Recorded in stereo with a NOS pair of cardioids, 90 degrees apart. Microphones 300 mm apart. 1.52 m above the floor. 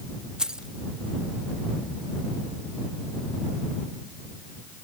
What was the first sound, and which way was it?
Keys jangling, straight ahead.